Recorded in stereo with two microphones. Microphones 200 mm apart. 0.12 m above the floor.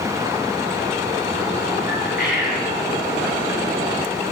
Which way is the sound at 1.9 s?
50° left (ahead or behind).